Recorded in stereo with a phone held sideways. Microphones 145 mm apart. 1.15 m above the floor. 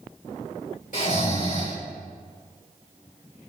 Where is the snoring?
70° left (ahead or behind), 3 m.